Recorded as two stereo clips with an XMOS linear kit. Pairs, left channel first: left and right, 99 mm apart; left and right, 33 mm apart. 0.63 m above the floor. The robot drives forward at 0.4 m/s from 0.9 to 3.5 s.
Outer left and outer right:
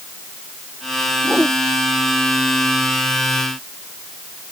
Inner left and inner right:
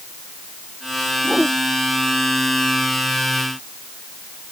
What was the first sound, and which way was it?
A whoosh, 10° right (ahead or behind).